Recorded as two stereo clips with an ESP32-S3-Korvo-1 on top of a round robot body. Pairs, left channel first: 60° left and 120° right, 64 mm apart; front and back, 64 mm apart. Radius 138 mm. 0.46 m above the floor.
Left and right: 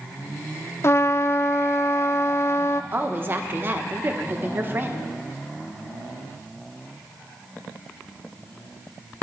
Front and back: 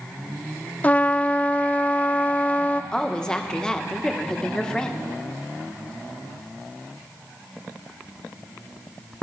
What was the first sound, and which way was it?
A trumpet, 55° left.